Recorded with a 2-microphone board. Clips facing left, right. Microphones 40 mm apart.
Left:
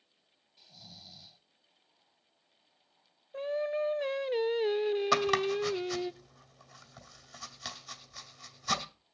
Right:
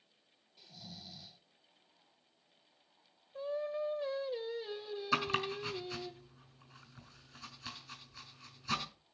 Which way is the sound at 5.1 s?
80° left.